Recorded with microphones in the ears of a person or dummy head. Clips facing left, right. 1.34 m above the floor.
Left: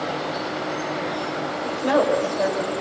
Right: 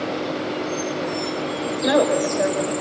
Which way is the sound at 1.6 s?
20° right (ahead or behind).